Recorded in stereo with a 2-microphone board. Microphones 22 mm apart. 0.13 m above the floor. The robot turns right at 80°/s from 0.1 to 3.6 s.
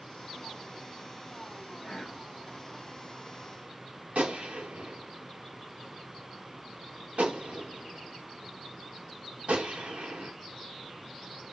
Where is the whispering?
150° left, 5 m; by 2.2 s 175° right, 5 m.